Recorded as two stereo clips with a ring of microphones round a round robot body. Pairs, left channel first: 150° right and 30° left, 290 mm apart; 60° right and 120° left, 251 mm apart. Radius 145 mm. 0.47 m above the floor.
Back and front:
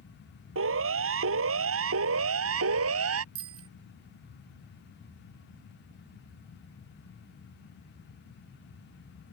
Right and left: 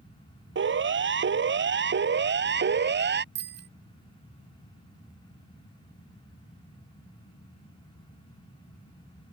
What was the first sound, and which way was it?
A siren, 80° left.